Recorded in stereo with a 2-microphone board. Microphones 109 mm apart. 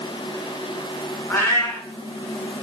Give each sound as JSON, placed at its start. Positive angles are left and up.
{"t": 1.3, "sound": "a cat meowing", "side_deg": 20, "distance_m": 0.8}